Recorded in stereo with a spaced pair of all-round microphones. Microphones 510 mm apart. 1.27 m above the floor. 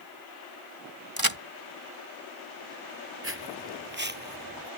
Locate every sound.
1.2 s a crack: 45° right (ahead or behind)
3.2 s footsteps: 25° right (ahead or behind); by 4.7 s 15° right (ahead or behind)